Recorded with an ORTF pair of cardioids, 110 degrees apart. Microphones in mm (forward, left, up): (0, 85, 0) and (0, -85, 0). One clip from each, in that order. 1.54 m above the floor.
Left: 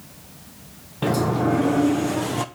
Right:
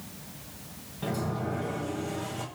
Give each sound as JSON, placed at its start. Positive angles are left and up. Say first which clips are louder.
{"t": 1.0, "sound": "a sliding door", "louder": "left 11 dB", "azimuth_deg": 65, "distance_m": 1.2}